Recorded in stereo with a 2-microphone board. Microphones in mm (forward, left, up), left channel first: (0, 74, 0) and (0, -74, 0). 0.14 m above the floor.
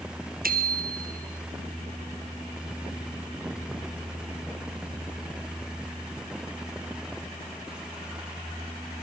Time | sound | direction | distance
0.4 | a bicycle bell | 65° right (ahead or behind) | 2 m